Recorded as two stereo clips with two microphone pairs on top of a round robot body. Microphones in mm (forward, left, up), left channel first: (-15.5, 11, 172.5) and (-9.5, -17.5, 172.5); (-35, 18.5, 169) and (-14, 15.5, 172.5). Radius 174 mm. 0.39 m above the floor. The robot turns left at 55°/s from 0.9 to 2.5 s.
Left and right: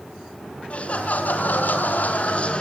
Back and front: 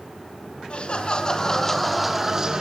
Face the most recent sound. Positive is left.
turn(degrees=55)